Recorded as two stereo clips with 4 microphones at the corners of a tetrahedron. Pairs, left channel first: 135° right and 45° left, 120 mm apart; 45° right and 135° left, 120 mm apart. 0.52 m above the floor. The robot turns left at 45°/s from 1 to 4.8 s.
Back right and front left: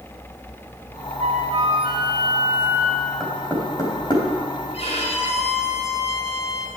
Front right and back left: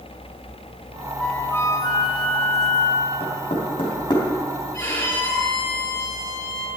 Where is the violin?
115° right, 6.5 m.